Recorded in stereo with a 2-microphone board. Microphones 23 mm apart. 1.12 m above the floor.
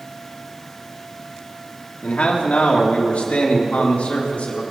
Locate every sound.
2.0 s a man speaking: 75° left (ahead or behind), 2.5 m; by 4.6 s 80° left, 3.5 m